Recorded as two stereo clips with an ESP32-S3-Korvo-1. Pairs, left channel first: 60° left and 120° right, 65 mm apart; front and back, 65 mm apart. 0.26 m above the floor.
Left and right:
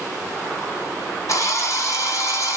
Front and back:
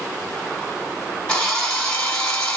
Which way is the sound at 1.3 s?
75° left.